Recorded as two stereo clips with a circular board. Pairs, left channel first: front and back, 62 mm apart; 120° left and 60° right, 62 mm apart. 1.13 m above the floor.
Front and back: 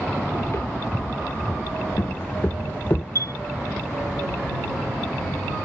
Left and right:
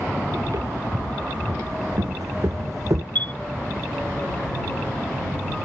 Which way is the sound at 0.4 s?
45° right.